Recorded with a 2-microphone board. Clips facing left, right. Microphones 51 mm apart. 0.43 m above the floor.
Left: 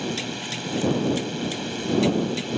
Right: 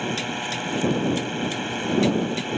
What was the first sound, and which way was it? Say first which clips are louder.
A drone: right 2 dB; 25° right (ahead or behind).